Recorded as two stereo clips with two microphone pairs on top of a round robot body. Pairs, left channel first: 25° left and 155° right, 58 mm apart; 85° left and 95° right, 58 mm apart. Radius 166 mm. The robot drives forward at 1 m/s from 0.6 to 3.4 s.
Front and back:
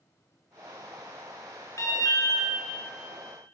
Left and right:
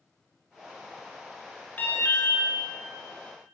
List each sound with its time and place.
1.8 s an alarm: 35° left, 3 m; by 2.5 s 45° left, 2 m